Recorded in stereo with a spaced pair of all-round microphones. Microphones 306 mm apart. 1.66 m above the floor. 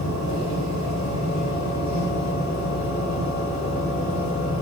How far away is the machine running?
About 2.5 m.